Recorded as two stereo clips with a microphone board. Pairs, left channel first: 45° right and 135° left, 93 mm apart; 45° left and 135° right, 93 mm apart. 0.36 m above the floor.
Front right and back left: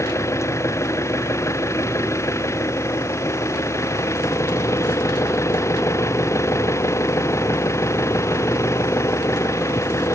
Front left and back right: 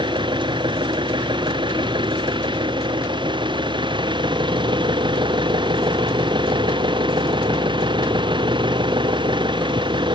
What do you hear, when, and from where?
0.0 s an engine running: 105° right